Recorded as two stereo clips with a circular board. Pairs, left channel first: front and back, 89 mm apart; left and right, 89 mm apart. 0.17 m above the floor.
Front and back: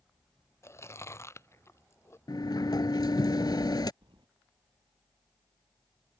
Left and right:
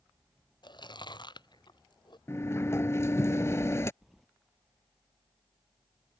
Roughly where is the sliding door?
Ahead left.